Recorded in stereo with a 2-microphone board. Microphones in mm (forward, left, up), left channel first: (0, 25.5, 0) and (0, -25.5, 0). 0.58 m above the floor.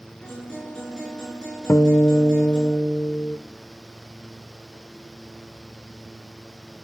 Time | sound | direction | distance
0.2 | a guitar | 15° left (ahead or behind) | 5.5 m
1.7 | a guitar | 60° left (ahead or behind) | 0.6 m